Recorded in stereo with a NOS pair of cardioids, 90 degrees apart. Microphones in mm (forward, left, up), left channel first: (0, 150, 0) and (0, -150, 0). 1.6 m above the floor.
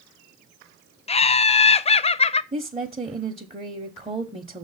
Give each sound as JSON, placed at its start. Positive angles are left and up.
{"t": 1.1, "sound": "laughter", "azimuth_deg": 20, "distance_m": 0.6}
{"t": 2.5, "sound": "a woman speaking", "azimuth_deg": -20, "distance_m": 0.9}